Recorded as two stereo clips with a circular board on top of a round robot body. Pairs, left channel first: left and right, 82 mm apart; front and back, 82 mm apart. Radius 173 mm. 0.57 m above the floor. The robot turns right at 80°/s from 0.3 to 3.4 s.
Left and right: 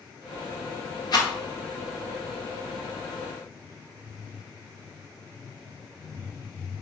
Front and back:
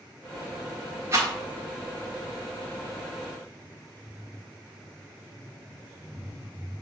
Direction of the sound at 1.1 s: 120° left.